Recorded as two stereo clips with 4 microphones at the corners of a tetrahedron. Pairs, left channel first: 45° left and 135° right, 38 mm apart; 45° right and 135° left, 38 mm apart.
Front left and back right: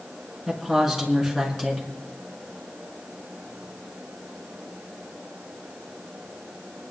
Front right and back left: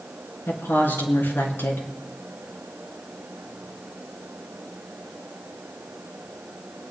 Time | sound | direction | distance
0.5 | a woman speaking | 45° right | 4 m